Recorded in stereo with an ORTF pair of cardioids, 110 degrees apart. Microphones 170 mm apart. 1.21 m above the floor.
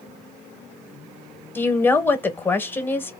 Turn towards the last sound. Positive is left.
turn(degrees=10)